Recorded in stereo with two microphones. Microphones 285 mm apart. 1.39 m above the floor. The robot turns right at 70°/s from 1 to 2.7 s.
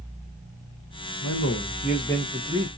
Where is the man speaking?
105° left, 0.9 m; by 2.7 s 150° right, 0.9 m.